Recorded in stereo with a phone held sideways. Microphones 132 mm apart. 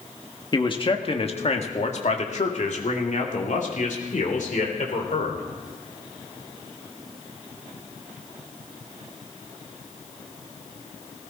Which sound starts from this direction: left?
A man speaking, at 0.5 s.